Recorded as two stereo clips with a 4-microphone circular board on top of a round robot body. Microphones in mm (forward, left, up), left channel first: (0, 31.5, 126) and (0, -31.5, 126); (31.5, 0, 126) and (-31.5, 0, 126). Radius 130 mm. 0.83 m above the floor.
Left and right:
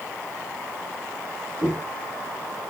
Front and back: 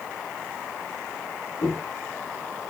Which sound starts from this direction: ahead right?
Footsteps, at 1.6 s.